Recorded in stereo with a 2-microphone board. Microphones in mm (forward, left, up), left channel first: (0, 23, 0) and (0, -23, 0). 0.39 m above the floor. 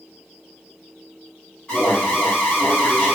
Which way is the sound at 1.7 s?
20° left (ahead or behind).